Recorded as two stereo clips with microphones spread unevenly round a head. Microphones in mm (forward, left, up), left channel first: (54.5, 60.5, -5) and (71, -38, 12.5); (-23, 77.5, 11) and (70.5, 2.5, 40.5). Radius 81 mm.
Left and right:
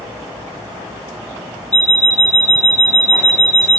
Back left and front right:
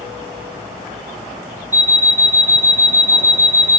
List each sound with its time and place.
1.7 s an alarm clock: 15° left, 0.8 m